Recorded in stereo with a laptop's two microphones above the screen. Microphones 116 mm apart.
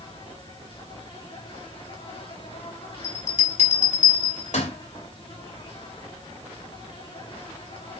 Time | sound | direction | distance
0.0 | an insect | 50° left (ahead or behind) | 3.5 m
3.0 | a bell | 80° left | 3 m